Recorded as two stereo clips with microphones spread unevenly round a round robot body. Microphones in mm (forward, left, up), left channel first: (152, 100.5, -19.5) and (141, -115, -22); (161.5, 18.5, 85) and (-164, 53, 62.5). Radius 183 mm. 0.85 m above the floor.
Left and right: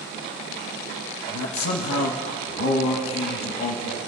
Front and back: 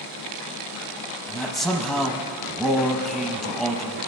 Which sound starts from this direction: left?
A man speaking, at 1.3 s.